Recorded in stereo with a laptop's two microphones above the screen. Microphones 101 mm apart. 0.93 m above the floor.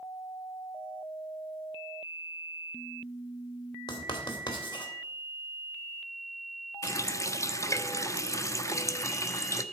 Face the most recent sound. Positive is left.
turn(degrees=30)  # may be behind; listen again after turning